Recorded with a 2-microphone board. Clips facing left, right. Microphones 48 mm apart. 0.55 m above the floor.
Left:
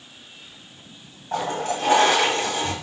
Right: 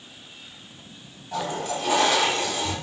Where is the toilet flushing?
45° left (ahead or behind), 0.8 m.